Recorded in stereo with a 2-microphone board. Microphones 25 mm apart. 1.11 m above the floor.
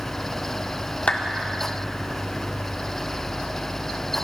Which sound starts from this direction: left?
A clap, at 1.1 s.